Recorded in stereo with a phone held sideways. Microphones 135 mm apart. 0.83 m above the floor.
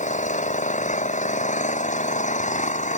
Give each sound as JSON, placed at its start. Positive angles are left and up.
{"t": 0.0, "sound": "an engine running", "side_deg": 65}